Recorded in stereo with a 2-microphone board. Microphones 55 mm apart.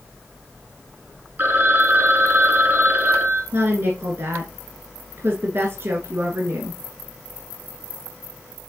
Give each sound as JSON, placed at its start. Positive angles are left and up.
{"t": 1.4, "sound": "a phone ringing", "side_deg": -35, "distance_m": 1.2}
{"t": 3.5, "sound": "a woman speaking", "side_deg": -45, "distance_m": 1.5}